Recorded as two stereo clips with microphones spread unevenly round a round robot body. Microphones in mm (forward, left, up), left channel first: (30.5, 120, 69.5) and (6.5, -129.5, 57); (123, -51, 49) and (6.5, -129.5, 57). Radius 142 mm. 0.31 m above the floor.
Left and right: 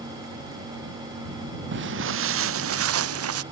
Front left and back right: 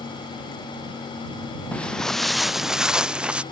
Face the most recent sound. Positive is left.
turn(degrees=-65)